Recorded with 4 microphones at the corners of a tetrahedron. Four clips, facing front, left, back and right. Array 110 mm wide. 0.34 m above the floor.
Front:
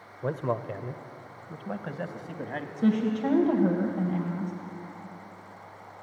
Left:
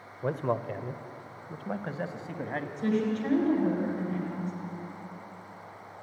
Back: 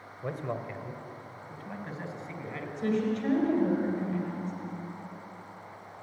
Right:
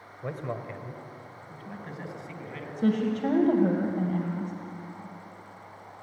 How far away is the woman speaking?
About 2 m.